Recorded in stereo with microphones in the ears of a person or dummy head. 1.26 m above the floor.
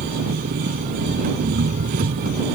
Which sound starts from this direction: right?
An engine running, at 0.0 s.